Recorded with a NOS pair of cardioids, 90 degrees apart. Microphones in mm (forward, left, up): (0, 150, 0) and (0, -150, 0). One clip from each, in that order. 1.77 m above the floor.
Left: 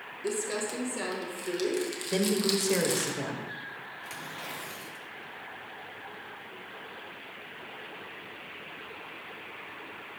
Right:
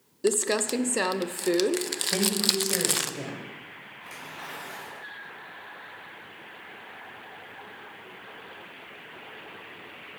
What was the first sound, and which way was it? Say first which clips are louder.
Crumpling: right 7 dB; 55° right.